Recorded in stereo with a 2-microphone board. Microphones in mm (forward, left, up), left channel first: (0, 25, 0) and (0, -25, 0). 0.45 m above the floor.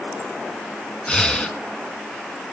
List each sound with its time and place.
1.1 s breathing: 15° left (ahead or behind), 1.2 m